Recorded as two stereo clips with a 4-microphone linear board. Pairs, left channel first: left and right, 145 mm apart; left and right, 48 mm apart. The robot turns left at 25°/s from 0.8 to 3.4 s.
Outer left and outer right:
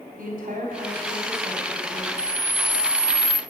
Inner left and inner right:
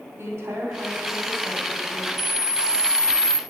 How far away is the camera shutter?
About 0.9 m.